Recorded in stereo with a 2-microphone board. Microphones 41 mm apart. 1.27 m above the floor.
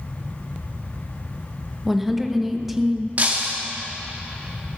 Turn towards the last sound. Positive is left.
turn(degrees=-40)  # may be behind; listen again after turning